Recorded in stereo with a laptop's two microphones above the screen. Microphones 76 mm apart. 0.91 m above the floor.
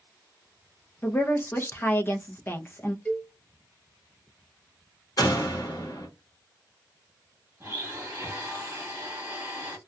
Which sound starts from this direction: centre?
A cowbell, at 3.0 s.